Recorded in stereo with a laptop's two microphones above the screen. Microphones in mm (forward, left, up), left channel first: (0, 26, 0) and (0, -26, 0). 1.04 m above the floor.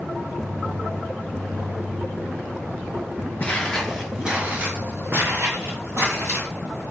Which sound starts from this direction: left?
Footsteps, at 3.4 s.